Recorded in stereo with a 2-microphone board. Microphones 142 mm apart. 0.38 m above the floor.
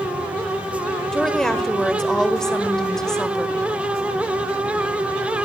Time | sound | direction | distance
1.1 | a woman speaking | 5° left (ahead or behind) | 1.5 m